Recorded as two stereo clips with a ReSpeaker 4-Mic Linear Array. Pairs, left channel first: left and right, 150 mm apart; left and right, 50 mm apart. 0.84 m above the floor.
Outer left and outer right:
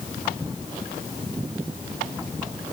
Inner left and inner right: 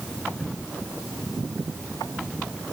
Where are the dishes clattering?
No dishes clattering in this recording.